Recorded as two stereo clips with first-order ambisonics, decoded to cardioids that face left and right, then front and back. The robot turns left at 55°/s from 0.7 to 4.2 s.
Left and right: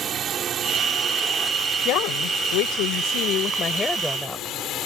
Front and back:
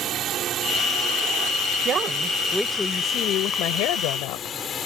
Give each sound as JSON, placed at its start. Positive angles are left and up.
{"t": 0.0, "sound": "a drone", "azimuth_deg": -140}
{"t": 1.9, "sound": "a woman speaking", "azimuth_deg": 125}